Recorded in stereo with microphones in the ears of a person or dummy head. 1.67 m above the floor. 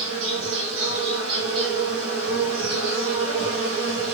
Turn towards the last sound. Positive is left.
turn(degrees=-75)  # may be behind; listen again after turning